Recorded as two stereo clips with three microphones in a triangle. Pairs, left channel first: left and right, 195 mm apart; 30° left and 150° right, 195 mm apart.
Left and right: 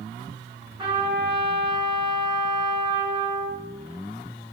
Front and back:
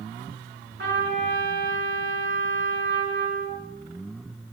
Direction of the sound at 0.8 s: 155° right.